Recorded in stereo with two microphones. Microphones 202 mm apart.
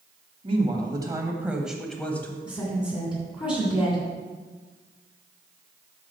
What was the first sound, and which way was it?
A woman speaking, 30° right (ahead or behind).